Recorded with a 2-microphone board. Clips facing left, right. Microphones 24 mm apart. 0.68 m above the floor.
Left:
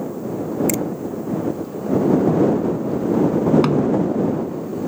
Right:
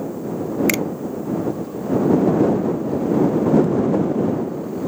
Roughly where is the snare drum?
Left.